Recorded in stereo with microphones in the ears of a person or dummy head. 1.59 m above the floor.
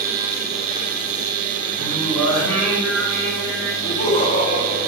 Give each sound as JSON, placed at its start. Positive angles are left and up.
{"t": 1.8, "sound": "singing", "side_deg": 0, "distance_m": 7.0}
{"t": 3.8, "sound": "laughter", "side_deg": 25, "distance_m": 5.0}